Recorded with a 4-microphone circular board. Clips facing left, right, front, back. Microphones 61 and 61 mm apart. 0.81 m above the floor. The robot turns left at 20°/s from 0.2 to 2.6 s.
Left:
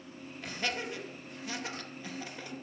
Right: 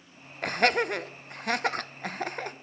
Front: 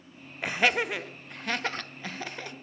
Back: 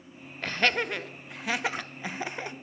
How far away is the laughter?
About 0.6 m.